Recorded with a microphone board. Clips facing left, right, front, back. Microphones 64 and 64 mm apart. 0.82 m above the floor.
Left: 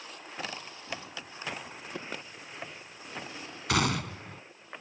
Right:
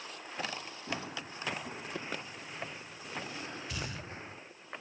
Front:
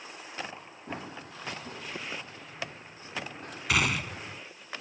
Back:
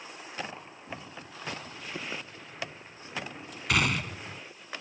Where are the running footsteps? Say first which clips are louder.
Right 2 dB, front 4 dB; 35° right; by 4.3 s 30° right.